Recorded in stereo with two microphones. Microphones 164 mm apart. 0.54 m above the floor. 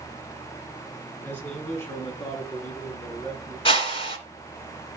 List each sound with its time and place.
1.2 s a man speaking: 10° left (ahead or behind), 4.5 m; by 3.5 s 20° left (ahead or behind), 6 m
3.6 s a whoosh: 35° left (ahead or behind), 2.5 m